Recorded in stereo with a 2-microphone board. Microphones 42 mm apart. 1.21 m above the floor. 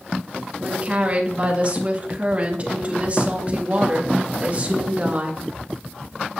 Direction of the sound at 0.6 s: 35° right (ahead or behind).